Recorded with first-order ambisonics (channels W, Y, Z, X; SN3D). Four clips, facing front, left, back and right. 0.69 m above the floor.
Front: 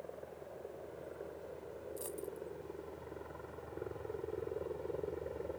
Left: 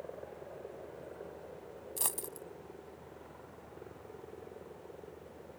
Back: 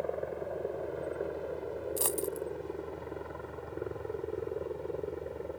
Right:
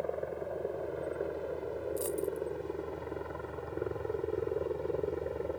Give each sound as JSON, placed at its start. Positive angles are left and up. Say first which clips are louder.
{"t": 0.0, "sound": "a helicopter", "louder": "right 10 dB, back 13 dB", "azimuth_deg": -140}
{"t": 2.0, "sound": "a dropped coin", "louder": "right 5 dB, back 10 dB", "azimuth_deg": 145}